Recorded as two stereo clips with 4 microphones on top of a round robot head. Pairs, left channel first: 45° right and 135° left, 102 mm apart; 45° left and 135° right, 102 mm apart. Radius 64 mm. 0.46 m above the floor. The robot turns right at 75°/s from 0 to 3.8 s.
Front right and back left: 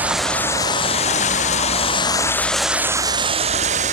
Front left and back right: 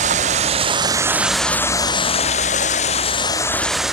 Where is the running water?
150° right; by 4.0 s 135° left.